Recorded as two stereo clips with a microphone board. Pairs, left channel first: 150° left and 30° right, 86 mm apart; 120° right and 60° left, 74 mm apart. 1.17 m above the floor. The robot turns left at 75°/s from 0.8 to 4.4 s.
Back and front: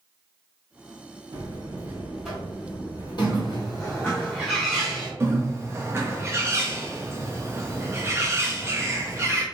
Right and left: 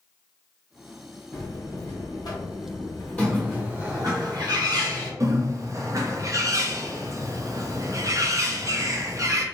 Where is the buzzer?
50° right, 1.8 m; by 4.2 s 95° left, 1.8 m.